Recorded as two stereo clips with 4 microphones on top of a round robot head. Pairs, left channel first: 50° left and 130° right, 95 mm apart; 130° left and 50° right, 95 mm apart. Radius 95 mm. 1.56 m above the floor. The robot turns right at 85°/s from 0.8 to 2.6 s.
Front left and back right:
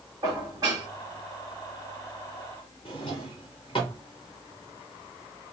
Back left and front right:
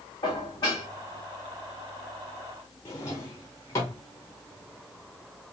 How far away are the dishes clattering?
About 2.0 m.